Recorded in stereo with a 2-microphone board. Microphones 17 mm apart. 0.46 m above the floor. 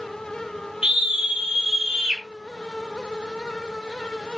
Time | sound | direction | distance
0.8 | a scream | 55° right (ahead or behind) | 4.5 m